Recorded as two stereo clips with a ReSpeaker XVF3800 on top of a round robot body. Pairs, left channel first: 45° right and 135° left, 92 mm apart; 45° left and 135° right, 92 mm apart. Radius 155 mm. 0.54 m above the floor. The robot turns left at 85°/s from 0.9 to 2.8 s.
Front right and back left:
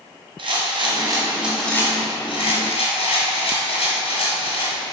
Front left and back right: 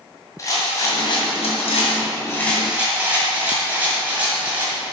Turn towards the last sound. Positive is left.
turn(degrees=-60)